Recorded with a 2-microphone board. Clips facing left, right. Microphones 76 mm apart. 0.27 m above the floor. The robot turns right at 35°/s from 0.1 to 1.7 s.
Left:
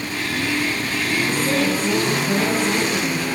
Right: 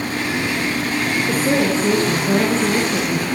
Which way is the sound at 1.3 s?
40° right (ahead or behind).